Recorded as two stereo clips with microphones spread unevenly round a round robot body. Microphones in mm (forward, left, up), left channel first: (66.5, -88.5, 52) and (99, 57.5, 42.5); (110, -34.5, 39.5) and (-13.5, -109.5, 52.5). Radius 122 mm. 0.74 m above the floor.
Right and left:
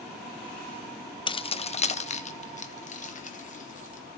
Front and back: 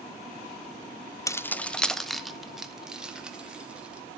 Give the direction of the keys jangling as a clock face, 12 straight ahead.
1 o'clock.